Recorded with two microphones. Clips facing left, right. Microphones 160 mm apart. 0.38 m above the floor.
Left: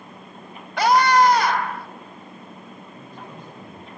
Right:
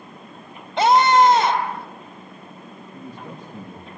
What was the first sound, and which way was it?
A scream, 25° right (ahead or behind).